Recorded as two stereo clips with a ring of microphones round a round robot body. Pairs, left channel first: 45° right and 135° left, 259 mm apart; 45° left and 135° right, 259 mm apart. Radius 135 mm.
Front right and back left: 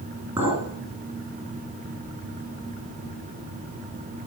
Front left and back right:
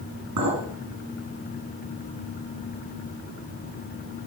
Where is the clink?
145° right, 3 m.